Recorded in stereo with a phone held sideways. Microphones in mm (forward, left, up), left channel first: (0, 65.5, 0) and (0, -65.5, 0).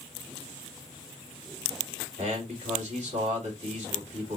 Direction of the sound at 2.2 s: 60° right (ahead or behind).